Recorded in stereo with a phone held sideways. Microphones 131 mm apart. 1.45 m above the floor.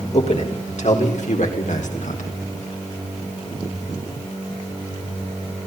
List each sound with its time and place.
0.1 s a man speaking: 60° left (ahead or behind), 4 m; by 2.3 s 75° left (ahead or behind), 4.5 m